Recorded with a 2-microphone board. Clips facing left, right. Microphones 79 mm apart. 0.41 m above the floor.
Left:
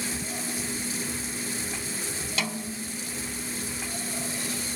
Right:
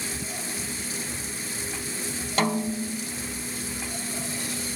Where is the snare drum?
45° right (ahead or behind).